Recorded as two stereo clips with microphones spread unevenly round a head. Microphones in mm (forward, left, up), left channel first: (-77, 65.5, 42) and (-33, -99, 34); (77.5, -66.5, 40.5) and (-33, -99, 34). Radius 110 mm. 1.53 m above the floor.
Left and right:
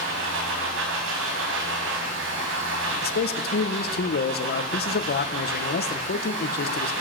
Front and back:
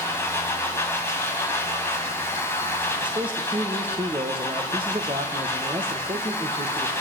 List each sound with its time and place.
0.0 s a machine running: 50° right, 6 m
3.0 s a man speaking: 135° left, 1.6 m